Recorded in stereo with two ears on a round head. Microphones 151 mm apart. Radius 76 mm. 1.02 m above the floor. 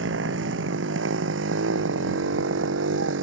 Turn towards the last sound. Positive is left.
turn(degrees=-80)